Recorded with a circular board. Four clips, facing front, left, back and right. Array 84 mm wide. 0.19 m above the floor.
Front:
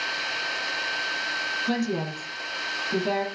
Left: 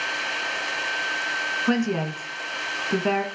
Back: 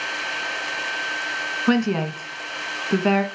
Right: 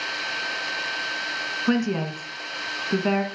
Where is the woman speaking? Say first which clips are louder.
Right 1 dB, back 8 dB; 175° left, 1.7 m.